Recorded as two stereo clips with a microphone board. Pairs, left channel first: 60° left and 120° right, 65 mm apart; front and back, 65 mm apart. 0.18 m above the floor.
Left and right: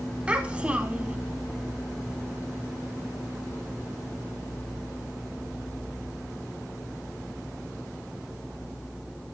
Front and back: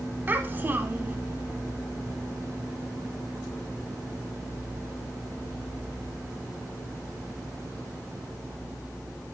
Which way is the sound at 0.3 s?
170° right.